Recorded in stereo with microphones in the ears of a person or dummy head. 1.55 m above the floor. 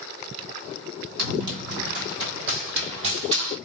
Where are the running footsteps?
60° right (ahead or behind), 3 m; by 3.6 s 30° right (ahead or behind), 2.5 m.